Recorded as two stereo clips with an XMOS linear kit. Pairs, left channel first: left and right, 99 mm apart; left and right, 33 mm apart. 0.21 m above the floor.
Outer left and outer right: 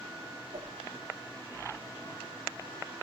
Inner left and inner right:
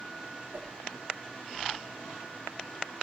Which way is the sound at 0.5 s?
75° right (ahead or behind).